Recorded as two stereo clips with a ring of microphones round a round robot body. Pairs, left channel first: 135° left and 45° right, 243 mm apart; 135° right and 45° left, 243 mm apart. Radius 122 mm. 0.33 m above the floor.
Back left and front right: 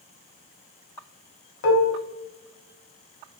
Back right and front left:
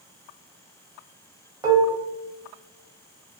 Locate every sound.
1.6 s dishes clattering: 120° left, 1.1 m